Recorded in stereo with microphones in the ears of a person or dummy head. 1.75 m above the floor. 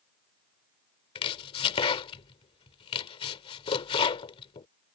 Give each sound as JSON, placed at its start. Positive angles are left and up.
{"t": 1.1, "sound": "chopping", "side_deg": 30}